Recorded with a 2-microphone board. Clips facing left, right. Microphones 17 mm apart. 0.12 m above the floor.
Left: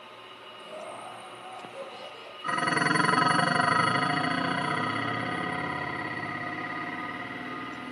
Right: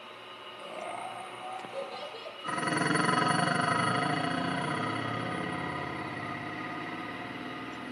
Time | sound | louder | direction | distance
0.6 | laughter | right 2 dB | 55° right (ahead or behind) | 3 m
2.4 | dishes clattering | left 4 dB | 20° left (ahead or behind) | 1.0 m